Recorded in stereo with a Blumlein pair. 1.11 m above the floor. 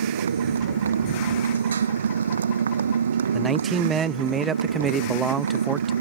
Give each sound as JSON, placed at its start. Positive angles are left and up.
{"t": 0.0, "sound": "a motorcycle", "azimuth_deg": -70}
{"t": 3.3, "sound": "a man speaking", "azimuth_deg": -20}